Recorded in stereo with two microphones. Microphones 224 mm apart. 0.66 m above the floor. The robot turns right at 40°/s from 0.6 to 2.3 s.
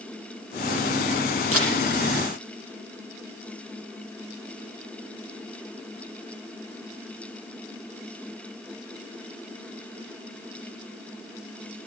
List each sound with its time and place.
1.5 s a camera shutter: 85° right, 10 m; by 1.8 s 75° right (ahead or behind), 10 m